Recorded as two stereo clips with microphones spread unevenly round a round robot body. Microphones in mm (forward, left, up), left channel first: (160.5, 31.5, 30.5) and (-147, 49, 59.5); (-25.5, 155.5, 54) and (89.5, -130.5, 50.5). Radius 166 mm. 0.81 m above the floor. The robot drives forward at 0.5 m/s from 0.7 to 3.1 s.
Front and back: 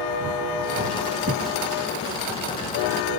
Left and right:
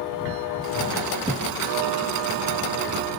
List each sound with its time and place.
1.3 s a thud: 135° right, 1.1 m; by 1.5 s 140° right, 1.2 m